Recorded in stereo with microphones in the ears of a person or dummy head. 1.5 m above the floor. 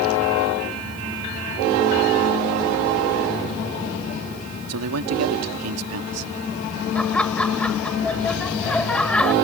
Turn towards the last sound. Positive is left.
turn(degrees=5)  # may be behind; listen again after turning